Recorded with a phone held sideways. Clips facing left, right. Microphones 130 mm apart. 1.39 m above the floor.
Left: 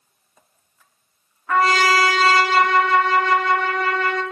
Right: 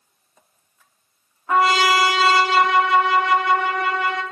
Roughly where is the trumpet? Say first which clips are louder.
Even; centre.